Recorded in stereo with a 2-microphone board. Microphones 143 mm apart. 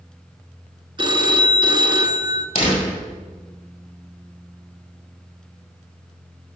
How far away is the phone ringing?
About 0.7 m.